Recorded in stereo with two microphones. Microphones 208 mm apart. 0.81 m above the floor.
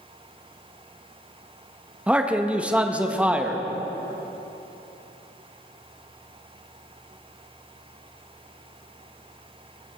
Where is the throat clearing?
I don't hear throat clearing.